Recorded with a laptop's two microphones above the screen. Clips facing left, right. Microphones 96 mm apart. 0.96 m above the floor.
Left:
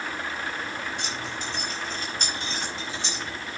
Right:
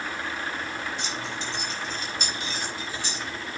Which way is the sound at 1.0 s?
55° left (ahead or behind).